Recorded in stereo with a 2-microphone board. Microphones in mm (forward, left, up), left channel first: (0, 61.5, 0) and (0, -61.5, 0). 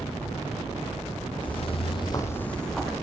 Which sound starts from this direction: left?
Footsteps, at 1.4 s.